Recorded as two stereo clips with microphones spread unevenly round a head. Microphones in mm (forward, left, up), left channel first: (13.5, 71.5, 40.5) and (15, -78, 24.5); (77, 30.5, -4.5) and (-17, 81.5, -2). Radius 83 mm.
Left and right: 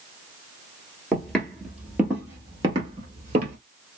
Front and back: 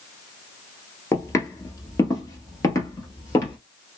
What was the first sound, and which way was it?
Footsteps, 20° left.